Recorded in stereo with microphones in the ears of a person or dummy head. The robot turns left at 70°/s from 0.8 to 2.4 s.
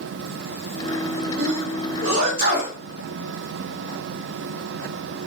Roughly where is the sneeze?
Right.